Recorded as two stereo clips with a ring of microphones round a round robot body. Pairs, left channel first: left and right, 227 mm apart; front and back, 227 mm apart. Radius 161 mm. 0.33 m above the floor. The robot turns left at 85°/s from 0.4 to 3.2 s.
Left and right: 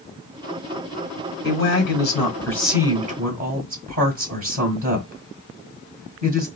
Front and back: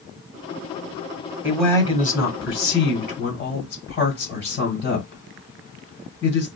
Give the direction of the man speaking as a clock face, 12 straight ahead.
9 o'clock.